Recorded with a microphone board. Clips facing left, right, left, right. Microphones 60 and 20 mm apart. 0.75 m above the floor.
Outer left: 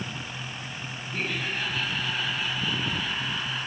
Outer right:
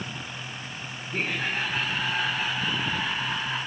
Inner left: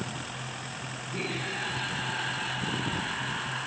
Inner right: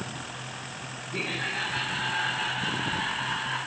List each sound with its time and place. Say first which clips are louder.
1.1 s laughter: outer right 2 dB, inner right 3 dB; 65° right (ahead or behind), 3.5 m